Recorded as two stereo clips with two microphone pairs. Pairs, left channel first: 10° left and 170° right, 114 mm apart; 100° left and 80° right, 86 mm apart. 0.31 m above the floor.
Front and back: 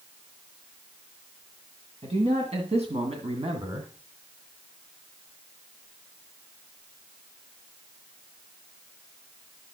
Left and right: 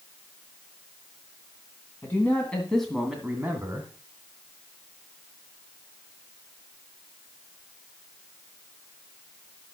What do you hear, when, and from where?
2.0 s a man speaking: 165° left, 2.5 m; by 3.9 s 135° right, 2 m